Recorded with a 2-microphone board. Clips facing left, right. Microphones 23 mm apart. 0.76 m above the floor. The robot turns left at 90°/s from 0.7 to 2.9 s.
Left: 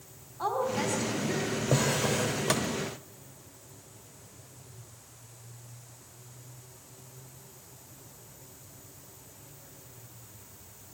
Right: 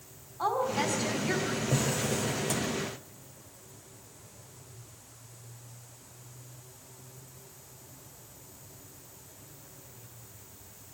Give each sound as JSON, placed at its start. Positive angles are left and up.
{"t": 0.4, "sound": "a woman speaking", "azimuth_deg": -10, "distance_m": 4.0}
{"t": 1.7, "sound": "a drawer", "azimuth_deg": 140, "distance_m": 1.3}